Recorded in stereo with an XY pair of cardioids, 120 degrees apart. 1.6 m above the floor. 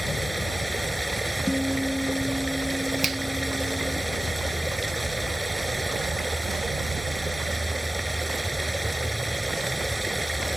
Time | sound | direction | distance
0.0 | running water | 5° right | ?
1.5 | a guitar | 5° left | ?
3.0 | a finger snap | 30° right | ?